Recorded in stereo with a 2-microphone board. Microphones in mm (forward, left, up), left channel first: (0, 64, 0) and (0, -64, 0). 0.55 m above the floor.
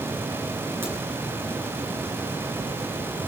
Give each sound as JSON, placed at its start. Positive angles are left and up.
{"t": 0.8, "sound": "a crack", "side_deg": -20, "distance_m": 6.5}